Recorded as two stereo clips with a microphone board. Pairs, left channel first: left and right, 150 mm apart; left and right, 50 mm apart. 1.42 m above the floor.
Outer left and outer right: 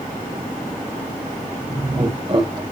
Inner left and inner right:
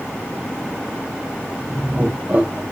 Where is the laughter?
35° right (ahead or behind), 1.4 m.